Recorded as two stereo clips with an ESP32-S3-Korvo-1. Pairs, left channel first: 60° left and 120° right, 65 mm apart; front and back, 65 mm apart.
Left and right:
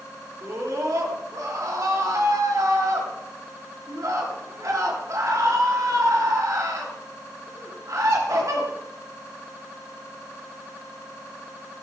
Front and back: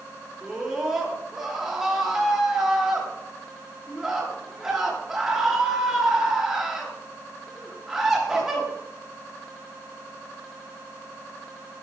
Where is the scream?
95° right, 4.5 m.